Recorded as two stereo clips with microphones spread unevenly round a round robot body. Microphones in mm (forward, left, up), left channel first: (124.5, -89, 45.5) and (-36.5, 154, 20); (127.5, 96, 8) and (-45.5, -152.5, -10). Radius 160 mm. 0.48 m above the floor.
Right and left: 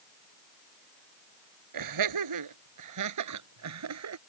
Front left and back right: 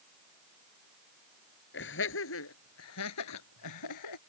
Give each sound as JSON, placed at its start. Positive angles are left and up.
{"t": 1.7, "sound": "laughter", "azimuth_deg": 110}